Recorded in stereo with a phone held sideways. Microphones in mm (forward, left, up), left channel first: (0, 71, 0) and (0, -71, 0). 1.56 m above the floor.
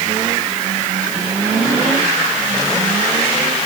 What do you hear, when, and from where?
Only background noise.